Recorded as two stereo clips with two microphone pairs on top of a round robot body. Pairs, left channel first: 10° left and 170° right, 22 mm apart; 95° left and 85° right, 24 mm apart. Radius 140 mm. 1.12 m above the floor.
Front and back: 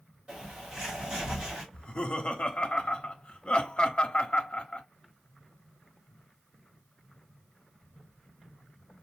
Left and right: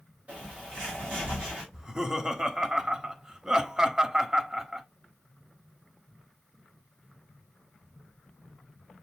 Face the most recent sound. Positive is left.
turn(degrees=-10)